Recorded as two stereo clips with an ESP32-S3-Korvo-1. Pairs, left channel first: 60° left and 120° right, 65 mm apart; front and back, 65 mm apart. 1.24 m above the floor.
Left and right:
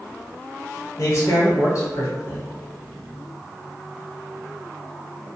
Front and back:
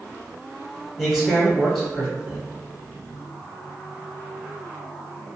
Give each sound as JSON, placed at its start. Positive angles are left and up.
{"t": 1.0, "sound": "a man speaking", "azimuth_deg": 95, "distance_m": 1.1}